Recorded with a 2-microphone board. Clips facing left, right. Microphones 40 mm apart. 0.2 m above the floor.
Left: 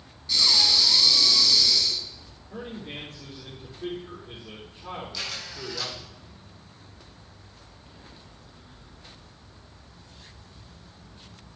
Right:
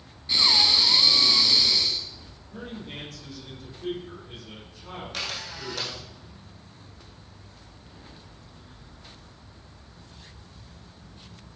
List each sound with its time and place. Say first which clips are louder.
0.3 s breathing: right 1 dB; 30° right (ahead or behind), 1.4 m
2.5 s a man speaking: left 1 dB; 40° left (ahead or behind), 6.5 m
5.1 s a camera shutter: right 2 dB; 60° right (ahead or behind), 4 m